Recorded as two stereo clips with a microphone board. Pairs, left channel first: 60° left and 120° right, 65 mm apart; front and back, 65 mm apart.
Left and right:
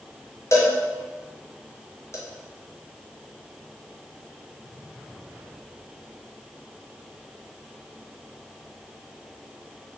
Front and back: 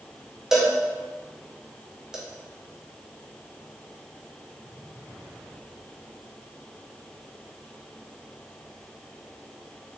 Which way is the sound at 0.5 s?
100° left.